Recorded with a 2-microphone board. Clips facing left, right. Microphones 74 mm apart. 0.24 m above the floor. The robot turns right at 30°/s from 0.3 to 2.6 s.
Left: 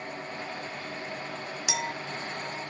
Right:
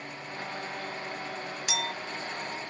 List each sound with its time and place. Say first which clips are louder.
1.7 s a clink: left 1 dB; 10° left (ahead or behind), 1.0 m